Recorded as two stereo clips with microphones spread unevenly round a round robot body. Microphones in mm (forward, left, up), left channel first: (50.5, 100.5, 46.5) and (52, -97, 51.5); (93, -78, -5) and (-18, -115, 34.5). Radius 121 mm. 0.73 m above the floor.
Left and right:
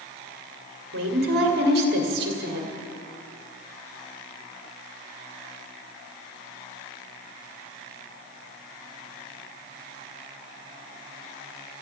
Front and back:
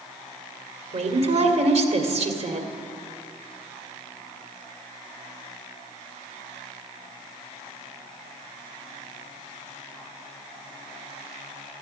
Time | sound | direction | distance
0.9 | a woman speaking | 130° right | 2.0 m